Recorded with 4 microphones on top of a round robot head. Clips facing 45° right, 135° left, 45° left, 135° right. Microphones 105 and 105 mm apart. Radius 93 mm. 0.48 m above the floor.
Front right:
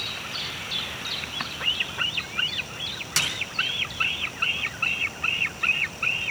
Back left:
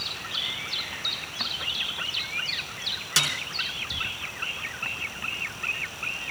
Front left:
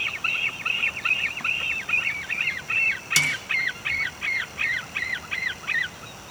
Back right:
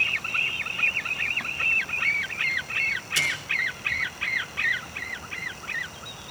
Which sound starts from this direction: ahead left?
A snare drum, at 3.2 s.